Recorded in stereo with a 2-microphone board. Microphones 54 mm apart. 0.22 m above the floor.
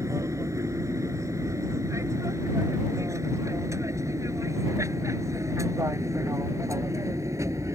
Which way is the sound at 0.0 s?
65° right (ahead or behind).